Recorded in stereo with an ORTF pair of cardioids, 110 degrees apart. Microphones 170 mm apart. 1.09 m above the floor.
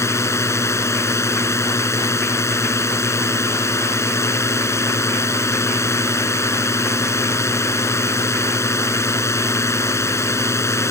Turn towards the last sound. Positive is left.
turn(degrees=15)